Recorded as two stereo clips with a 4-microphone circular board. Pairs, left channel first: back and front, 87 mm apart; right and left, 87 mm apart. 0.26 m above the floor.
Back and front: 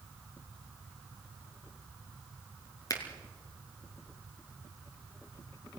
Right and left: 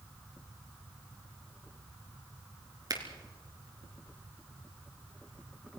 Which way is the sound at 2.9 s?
135° left.